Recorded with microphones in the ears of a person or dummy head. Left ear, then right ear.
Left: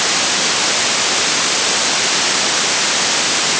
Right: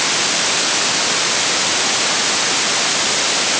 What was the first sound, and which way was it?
Only background noise.